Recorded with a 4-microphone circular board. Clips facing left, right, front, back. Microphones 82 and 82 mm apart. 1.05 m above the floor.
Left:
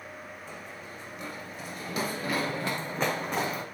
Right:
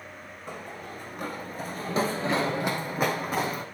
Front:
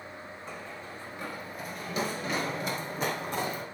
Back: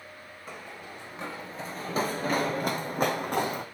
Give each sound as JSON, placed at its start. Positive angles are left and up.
{"t": 0.5, "sound": "running footsteps", "azimuth_deg": -100, "distance_m": 2.5}